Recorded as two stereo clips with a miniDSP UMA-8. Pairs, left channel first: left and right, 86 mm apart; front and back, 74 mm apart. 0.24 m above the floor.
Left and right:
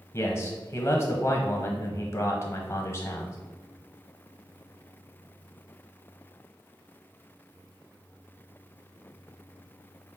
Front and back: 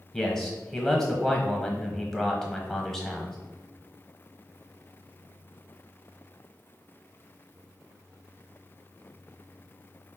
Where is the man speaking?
80° left, 1.0 m.